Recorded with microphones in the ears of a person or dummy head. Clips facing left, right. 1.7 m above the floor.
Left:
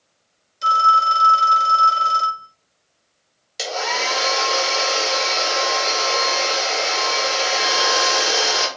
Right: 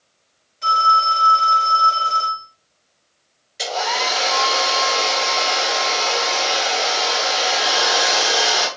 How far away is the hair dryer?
About 0.9 m.